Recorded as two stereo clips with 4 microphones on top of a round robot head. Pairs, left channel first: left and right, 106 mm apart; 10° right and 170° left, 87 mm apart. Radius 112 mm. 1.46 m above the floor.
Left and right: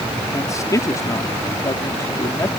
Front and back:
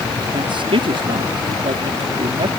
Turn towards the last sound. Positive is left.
turn(degrees=150)